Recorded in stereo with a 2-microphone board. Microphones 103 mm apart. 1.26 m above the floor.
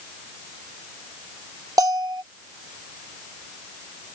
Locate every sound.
1.8 s a bell: 40° right (ahead or behind)